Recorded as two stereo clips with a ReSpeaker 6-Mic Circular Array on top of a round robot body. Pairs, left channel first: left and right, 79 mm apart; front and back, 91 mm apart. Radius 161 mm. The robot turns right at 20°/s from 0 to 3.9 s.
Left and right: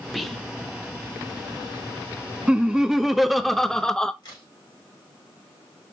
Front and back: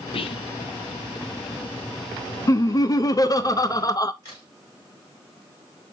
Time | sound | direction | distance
0.1 | whispering | straight ahead | 0.8 m
2.5 | laughter | 15° right | 0.7 m
4.2 | a crack | 50° left | 3.5 m